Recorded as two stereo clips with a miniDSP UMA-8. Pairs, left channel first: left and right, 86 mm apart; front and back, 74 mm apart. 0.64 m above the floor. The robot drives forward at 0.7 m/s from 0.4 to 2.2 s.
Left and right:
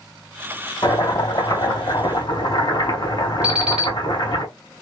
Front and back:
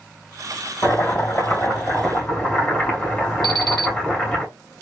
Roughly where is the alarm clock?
Behind.